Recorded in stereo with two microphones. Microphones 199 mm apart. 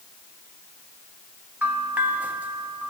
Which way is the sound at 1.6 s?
10° right (ahead or behind).